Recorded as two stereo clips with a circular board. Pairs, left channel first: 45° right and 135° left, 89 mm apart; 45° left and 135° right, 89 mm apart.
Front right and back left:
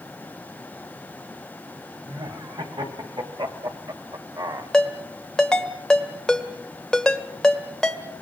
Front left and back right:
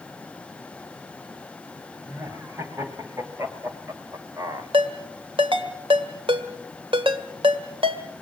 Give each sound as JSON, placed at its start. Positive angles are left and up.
{"t": 2.0, "sound": "laughter", "azimuth_deg": 160, "distance_m": 3.5}
{"t": 4.7, "sound": "a ringtone", "azimuth_deg": -130, "distance_m": 1.8}